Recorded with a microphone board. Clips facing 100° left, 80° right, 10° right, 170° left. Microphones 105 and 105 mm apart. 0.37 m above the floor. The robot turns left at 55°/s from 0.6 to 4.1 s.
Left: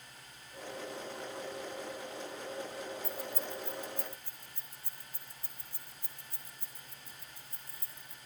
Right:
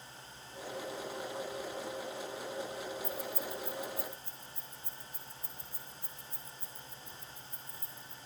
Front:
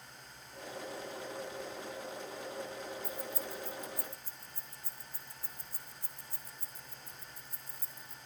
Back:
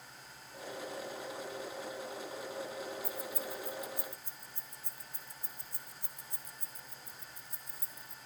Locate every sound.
3.0 s keys jangling: 160° left, 2 m; by 8.2 s 100° left, 2 m